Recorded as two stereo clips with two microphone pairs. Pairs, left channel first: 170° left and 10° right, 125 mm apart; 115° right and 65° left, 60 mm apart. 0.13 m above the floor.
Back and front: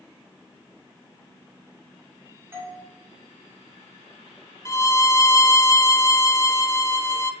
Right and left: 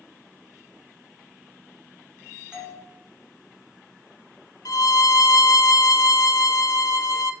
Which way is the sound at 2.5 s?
15° left.